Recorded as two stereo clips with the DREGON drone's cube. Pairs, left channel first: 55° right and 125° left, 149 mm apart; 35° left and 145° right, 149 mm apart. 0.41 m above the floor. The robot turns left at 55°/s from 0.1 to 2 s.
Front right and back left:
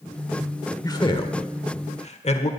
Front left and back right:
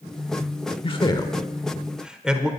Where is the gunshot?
I don't hear a gunshot.